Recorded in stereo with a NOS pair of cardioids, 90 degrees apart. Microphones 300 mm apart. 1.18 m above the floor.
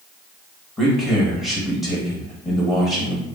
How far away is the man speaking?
About 1.1 m.